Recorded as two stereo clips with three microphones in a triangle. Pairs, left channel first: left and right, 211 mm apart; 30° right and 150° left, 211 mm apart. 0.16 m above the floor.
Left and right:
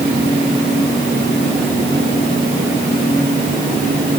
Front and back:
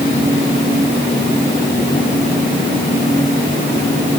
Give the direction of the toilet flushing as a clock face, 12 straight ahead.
I don't hear a toilet flushing.